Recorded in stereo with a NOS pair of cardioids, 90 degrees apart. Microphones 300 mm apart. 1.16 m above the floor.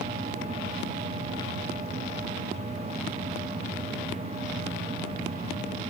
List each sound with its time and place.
0.0 s a machine running: 20° right, 3 m